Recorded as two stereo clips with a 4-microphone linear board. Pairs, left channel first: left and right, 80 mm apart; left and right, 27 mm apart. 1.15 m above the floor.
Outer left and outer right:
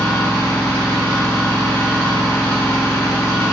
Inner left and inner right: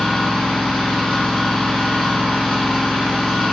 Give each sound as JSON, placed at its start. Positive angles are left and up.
{"t": 0.0, "sound": "an engine running", "side_deg": 25, "distance_m": 3.5}